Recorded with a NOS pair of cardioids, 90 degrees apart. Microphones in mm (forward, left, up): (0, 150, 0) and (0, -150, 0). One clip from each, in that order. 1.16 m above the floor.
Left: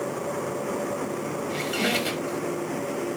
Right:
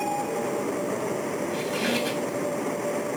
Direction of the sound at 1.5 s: 35° left.